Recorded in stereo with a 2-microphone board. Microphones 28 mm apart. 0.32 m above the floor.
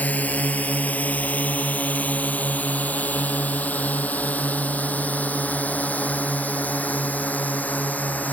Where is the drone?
80° left; by 8.3 s 85° left.